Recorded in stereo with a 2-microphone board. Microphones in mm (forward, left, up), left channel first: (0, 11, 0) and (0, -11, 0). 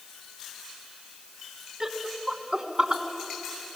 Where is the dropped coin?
No dropped coin in this recording.